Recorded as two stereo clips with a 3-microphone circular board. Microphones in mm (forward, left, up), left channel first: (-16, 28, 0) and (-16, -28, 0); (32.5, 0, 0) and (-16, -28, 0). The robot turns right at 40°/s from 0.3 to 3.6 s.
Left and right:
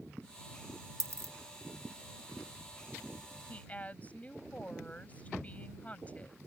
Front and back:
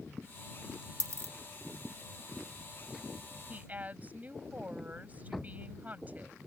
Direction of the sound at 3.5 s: 145° left.